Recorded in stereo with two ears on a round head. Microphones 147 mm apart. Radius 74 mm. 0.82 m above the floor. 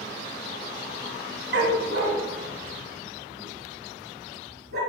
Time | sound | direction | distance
1.5 | a dog barking | 70° right (ahead or behind) | 1.6 m